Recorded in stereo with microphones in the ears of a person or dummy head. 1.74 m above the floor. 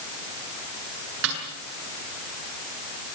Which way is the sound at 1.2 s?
75° right (ahead or behind).